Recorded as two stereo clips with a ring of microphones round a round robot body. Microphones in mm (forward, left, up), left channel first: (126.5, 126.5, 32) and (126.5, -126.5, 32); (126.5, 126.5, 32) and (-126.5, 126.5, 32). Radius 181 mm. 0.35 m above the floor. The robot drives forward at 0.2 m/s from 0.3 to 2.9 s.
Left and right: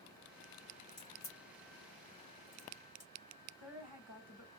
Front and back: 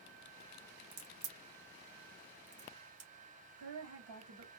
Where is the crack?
165° left, 1.2 m; by 3.1 s 170° left, 1.6 m.